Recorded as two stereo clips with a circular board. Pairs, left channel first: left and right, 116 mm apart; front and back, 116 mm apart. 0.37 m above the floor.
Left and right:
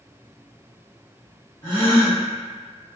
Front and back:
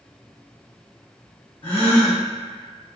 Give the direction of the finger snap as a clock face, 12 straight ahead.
No finger snap in this recording.